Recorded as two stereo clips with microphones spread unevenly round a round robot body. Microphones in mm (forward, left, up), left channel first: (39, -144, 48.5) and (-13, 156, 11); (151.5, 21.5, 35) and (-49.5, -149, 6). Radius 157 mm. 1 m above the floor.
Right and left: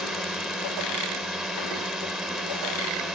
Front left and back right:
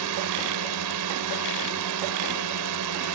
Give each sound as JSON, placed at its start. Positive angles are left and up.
{"t": 0.0, "sound": "a drone", "azimuth_deg": -170}